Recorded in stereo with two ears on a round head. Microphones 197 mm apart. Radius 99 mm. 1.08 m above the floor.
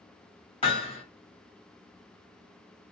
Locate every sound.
0.6 s hammering: 25° left (ahead or behind), 1.8 m